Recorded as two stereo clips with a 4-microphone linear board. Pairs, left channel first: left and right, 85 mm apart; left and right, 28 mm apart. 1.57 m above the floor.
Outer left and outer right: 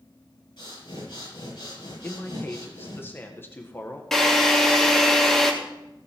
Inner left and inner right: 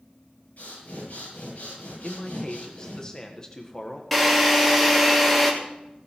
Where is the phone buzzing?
I don't hear a phone buzzing.